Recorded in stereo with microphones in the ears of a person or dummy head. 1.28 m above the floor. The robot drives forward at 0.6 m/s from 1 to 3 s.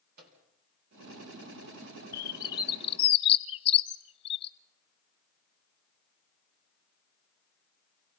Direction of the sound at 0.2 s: 55° right (ahead or behind).